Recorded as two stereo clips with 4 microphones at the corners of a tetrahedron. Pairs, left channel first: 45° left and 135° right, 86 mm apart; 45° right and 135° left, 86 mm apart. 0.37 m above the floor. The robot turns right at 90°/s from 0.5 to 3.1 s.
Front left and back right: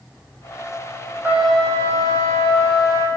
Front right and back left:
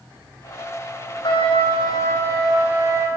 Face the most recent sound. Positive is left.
turn(degrees=100)